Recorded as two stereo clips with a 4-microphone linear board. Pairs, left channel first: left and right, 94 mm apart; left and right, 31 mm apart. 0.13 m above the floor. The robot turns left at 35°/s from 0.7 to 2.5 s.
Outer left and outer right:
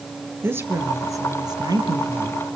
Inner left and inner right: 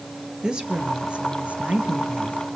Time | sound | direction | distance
0.4 | a woman speaking | 30° right | 3 m